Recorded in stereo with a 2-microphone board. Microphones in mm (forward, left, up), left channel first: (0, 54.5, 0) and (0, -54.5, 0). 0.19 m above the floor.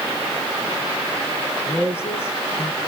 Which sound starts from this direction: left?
A woman speaking, at 1.7 s.